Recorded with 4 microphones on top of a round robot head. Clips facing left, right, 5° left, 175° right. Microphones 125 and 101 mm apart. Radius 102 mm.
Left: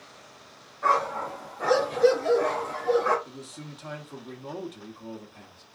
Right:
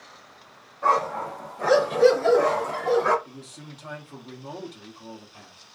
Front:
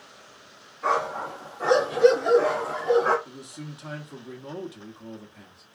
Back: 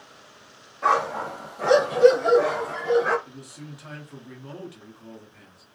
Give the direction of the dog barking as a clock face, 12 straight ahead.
5 o'clock.